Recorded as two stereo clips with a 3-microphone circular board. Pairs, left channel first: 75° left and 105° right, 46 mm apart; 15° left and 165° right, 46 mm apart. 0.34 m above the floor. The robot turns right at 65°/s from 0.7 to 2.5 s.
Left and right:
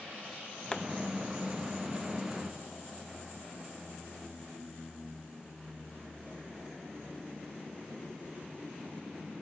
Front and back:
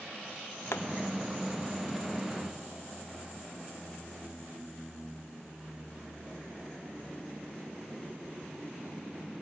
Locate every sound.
0.7 s a pop: straight ahead; by 0.8 s 10° left